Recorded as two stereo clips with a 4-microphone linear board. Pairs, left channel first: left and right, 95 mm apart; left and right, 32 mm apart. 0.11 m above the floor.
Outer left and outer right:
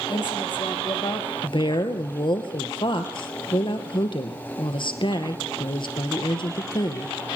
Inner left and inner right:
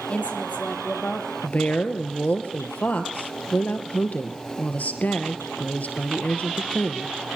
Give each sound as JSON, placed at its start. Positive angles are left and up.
{"t": 0.1, "sound": "a woman speaking", "side_deg": 50, "distance_m": 3.5}
{"t": 1.4, "sound": "a woman speaking", "side_deg": 55, "distance_m": 2.0}